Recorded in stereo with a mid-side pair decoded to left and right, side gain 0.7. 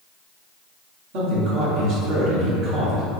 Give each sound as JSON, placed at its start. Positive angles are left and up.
{"t": 1.1, "sound": "a man speaking", "azimuth_deg": -70, "distance_m": 1.3}